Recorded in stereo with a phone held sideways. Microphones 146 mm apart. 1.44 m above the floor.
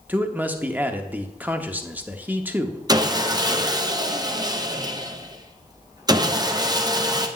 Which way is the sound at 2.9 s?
25° right (ahead or behind).